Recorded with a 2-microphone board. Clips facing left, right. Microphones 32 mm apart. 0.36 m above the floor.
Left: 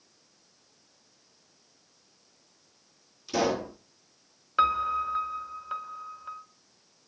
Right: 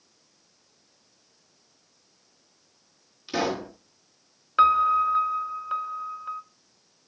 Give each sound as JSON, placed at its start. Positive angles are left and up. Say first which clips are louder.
{"t": 3.3, "sound": "a pop", "louder": "even", "side_deg": -25, "distance_m": 6.0}
{"t": 4.6, "sound": "a piano", "louder": "right 6 dB", "side_deg": -10, "distance_m": 0.7}